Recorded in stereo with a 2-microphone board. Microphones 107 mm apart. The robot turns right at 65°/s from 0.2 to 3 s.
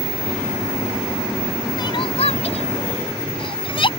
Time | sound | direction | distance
1.8 | crying | 40° left (ahead or behind) | ?